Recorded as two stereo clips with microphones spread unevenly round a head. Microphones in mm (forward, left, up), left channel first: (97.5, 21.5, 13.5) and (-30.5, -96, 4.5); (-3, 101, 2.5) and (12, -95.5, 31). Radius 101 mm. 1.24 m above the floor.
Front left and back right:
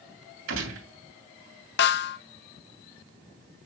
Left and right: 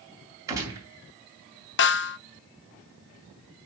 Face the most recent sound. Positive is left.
turn(degrees=75)